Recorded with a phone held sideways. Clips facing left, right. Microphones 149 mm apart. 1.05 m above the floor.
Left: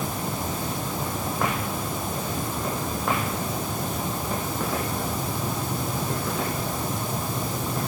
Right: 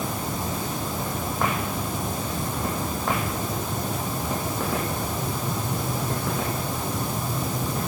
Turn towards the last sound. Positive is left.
No sound to turn to.